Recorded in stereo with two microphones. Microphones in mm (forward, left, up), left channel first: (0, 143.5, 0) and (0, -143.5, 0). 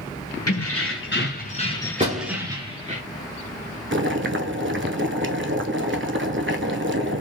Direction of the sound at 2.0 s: 25° right (ahead or behind).